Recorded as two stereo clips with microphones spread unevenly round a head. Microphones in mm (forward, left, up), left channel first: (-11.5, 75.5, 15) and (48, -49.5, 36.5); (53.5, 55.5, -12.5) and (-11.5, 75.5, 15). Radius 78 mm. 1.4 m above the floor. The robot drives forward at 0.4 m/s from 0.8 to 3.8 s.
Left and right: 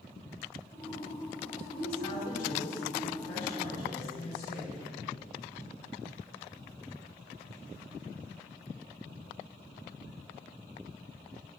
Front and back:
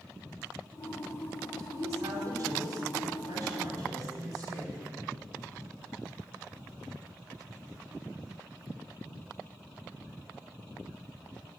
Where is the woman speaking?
130° left, 5 m; by 4.8 s 140° left, 5.5 m.